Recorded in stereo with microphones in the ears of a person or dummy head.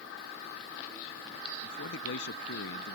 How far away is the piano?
No piano in this recording.